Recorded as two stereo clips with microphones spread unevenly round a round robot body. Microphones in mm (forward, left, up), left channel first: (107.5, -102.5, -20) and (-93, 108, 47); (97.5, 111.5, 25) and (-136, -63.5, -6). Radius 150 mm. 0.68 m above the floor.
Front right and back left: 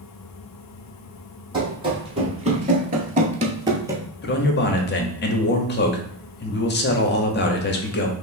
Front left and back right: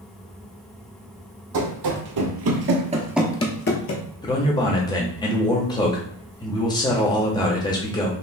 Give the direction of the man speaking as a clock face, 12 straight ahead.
1 o'clock.